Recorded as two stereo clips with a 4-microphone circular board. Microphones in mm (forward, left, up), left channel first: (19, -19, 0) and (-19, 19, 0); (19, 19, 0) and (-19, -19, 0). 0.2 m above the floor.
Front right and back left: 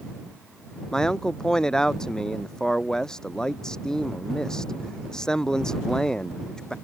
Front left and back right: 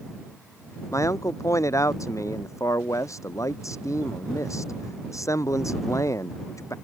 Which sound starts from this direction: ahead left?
A man speaking, at 0.9 s.